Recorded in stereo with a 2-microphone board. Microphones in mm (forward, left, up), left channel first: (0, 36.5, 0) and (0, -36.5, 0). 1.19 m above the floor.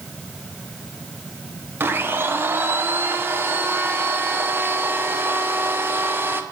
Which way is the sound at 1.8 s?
30° right (ahead or behind).